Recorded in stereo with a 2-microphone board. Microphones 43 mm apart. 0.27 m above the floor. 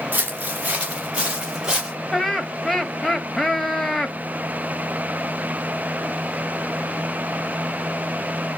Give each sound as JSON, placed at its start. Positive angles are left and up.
{"t": 0.1, "sound": "footsteps", "side_deg": -40, "distance_m": 1.6}
{"t": 2.1, "sound": "laughter", "side_deg": 5, "distance_m": 1.2}